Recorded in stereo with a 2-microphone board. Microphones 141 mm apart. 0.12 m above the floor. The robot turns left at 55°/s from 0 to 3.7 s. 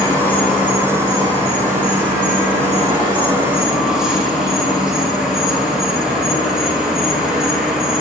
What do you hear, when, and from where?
0.0 s an insect: 30° left, 0.8 m; by 8.0 s 175° right, 0.8 m